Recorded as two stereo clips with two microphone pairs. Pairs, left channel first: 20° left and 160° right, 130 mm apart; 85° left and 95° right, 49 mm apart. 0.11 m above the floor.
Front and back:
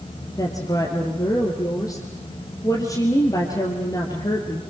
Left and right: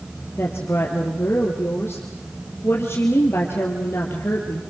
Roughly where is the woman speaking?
Left.